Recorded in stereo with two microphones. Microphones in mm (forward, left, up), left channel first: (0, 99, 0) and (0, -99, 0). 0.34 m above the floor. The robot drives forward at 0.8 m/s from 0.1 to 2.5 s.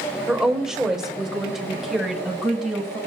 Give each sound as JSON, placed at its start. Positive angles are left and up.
{"t": 0.3, "sound": "a woman speaking", "side_deg": -5, "distance_m": 1.0}